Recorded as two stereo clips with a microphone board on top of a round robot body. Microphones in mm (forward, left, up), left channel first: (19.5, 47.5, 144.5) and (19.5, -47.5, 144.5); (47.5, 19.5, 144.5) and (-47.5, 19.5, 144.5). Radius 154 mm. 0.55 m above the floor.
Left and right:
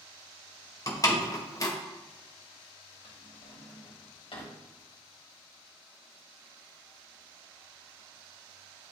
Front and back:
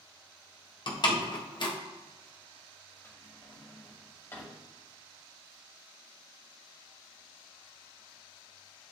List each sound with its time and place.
0.9 s a door slam: 35° left, 1.7 m
3.0 s a drawer: 60° left, 2.5 m